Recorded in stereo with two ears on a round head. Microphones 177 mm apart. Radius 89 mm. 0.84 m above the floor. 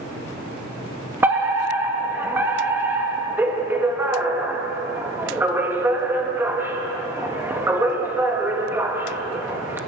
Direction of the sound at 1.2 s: 10° right (ahead or behind).